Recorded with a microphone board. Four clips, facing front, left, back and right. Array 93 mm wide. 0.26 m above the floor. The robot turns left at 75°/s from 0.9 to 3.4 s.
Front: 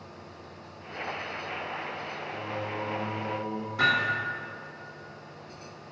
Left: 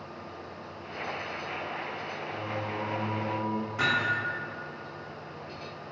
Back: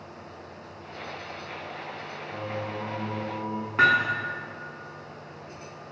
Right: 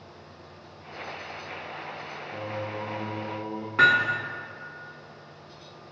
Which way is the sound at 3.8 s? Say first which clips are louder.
Right 8 dB, back 4 dB; 140° right.